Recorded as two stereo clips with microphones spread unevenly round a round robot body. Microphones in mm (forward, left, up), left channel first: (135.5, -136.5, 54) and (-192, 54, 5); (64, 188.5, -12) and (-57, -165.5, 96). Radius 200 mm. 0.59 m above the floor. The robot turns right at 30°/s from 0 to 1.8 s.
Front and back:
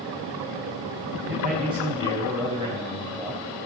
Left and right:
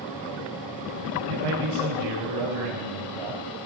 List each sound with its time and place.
1.3 s a man speaking: 150° right, 4.5 m; by 3.4 s 130° right, 4.5 m